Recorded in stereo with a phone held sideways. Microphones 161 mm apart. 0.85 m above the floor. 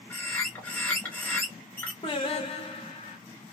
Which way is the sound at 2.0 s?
35° left (ahead or behind).